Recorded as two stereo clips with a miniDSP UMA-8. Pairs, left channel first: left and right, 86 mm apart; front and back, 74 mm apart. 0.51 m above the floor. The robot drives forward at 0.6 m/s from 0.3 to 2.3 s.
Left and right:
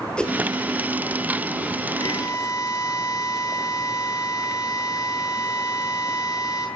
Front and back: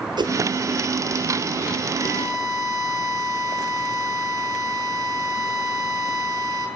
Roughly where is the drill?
Behind left.